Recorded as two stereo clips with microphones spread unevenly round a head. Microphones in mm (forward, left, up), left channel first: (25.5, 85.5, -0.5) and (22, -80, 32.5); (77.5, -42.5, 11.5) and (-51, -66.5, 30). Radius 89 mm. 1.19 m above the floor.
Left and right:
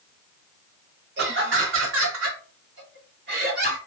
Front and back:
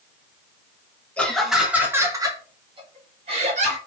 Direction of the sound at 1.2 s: 70° right.